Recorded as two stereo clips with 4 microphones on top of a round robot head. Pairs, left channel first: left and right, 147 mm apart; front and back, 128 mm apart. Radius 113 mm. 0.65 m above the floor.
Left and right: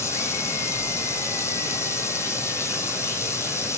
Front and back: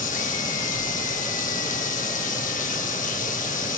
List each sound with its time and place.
0.0 s running water: 15° left, 2.5 m